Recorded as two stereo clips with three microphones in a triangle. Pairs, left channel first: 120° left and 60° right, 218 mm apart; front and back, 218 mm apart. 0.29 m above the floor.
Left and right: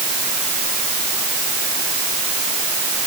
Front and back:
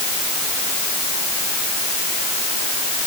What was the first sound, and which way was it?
Only background noise.